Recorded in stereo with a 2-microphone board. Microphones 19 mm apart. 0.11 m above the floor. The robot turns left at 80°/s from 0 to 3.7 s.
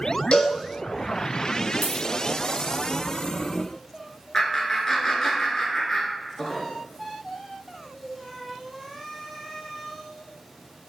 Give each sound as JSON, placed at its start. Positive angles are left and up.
{"t": 0.3, "sound": "a cowbell", "side_deg": 70, "distance_m": 0.8}
{"t": 1.8, "sound": "a dropped coin", "side_deg": 70, "distance_m": 1.6}
{"t": 4.3, "sound": "laughter", "side_deg": 30, "distance_m": 1.2}